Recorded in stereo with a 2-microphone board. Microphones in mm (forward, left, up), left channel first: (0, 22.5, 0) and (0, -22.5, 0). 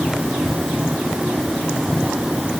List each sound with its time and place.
Only background noise.